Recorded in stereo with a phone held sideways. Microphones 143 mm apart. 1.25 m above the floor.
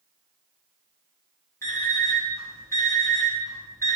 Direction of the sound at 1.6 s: 20° left (ahead or behind).